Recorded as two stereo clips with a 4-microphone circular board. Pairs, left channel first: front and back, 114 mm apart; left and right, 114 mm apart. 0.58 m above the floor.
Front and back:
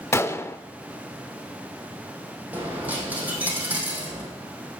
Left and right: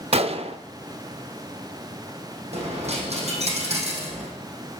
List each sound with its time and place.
0.1 s a gunshot: 65° right, 0.6 m
2.5 s a dropped coin: 105° right, 3.5 m